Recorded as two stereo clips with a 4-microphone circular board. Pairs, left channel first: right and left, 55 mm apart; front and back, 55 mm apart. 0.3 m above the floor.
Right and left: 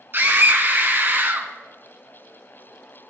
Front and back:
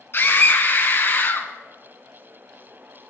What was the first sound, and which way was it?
A scream, 45° left.